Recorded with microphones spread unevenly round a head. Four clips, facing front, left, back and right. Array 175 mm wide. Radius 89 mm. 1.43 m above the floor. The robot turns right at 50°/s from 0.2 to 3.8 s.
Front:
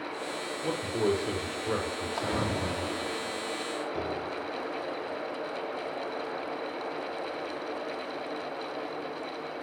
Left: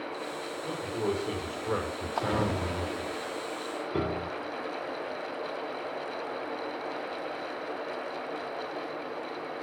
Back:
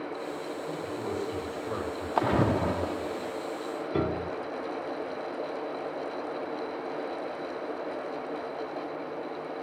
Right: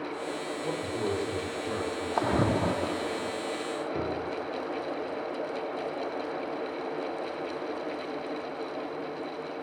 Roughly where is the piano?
Behind left.